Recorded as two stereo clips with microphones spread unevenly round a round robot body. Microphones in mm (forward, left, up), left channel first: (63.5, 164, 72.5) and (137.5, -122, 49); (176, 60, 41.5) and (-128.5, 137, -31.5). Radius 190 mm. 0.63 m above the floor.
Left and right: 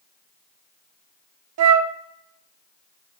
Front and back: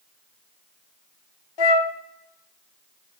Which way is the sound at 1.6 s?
40° right.